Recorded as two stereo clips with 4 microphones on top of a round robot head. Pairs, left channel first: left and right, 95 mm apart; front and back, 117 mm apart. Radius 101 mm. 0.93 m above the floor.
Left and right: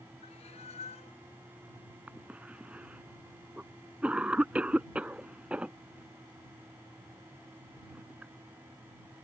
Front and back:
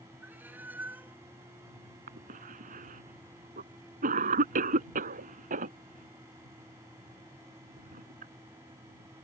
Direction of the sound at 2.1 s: 170° right.